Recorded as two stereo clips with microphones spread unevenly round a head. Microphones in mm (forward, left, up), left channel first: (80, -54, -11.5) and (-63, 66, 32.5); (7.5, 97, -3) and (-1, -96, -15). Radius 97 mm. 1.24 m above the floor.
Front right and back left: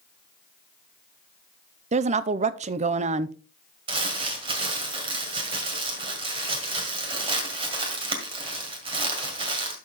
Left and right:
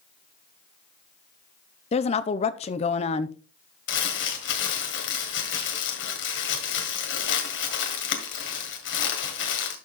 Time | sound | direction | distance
1.9 | a woman speaking | 100° left | 0.5 m
3.9 | crumpling | 85° left | 1.9 m